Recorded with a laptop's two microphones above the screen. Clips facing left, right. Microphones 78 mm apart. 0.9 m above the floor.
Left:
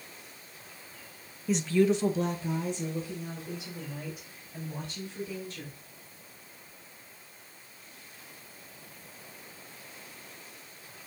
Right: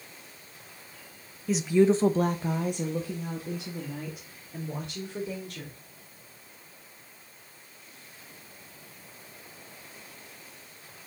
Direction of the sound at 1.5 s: Centre (ahead or behind).